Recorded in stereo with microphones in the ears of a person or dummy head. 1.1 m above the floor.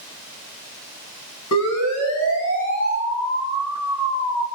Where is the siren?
85° left, 9 m.